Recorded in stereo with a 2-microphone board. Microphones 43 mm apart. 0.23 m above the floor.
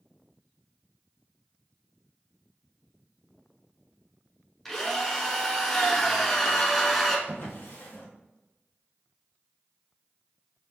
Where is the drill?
5° left (ahead or behind), 1.0 m.